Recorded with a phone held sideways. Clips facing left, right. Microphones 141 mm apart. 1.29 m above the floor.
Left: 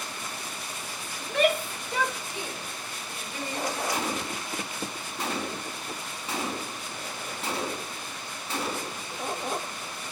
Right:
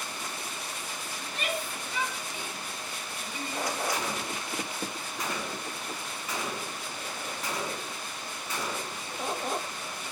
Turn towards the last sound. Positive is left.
turn(degrees=30)  # may be behind; listen again after turning